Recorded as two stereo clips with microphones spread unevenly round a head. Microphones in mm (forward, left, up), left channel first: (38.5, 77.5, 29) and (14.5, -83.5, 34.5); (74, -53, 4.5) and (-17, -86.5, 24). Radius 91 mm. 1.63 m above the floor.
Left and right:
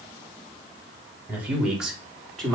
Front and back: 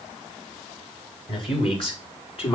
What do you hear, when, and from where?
1.3 s a man speaking: 20° right, 4.5 m; by 2.5 s 5° right, 4.5 m